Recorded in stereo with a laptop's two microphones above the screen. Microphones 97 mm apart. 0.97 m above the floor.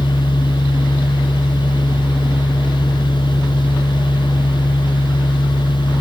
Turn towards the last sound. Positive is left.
turn(degrees=55)  # may be behind; listen again after turning